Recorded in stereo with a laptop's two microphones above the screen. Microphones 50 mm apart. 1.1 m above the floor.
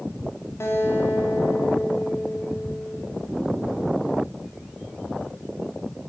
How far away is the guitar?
About 2.5 m.